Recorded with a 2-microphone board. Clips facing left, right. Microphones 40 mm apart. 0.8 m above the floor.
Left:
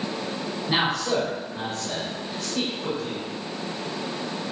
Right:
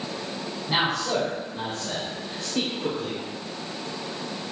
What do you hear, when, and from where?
0.7 s a man speaking: 10° left (ahead or behind), 3.5 m; by 3.2 s 40° right (ahead or behind), 2 m